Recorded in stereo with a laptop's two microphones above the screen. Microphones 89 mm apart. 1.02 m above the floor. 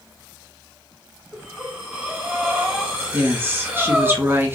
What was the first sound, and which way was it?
Breathing, 15° right (ahead or behind).